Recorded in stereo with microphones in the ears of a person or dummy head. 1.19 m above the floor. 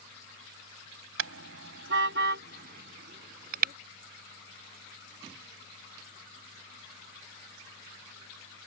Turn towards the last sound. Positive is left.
turn(degrees=-45)  # may be behind; listen again after turning